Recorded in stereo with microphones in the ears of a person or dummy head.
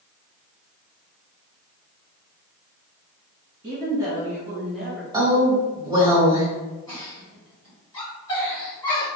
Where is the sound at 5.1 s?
20° right (ahead or behind), 1.3 m.